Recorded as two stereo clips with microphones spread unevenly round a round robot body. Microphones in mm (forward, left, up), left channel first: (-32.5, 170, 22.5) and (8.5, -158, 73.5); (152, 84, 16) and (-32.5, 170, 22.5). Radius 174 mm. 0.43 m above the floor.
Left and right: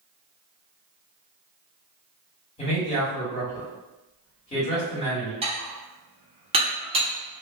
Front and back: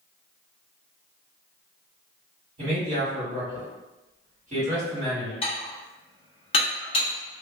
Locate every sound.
2.6 s a man speaking: 140° left, 1.7 m
5.4 s dishes clattering: 10° right, 0.7 m